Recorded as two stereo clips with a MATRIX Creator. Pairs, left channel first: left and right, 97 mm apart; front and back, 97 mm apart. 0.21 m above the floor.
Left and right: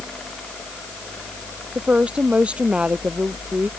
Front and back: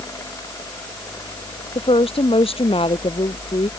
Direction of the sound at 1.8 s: 10° right.